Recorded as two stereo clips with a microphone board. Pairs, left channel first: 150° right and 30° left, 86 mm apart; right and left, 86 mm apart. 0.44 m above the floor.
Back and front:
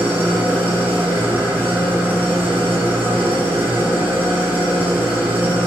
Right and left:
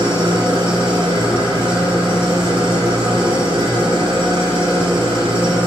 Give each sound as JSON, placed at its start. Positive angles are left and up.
{"t": 0.0, "sound": "an engine running", "azimuth_deg": 100, "distance_m": 3.0}